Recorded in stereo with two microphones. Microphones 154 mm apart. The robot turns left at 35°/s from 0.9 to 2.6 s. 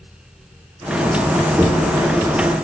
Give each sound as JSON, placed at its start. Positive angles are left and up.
{"t": 1.6, "sound": "footsteps", "side_deg": -10, "distance_m": 1.6}